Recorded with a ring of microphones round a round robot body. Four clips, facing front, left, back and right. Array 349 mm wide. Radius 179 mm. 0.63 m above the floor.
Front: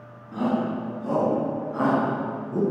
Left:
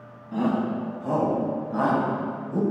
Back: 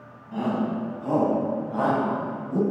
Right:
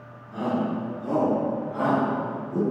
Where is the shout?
130° left, 4.5 m; by 2.6 s 150° left, 4 m.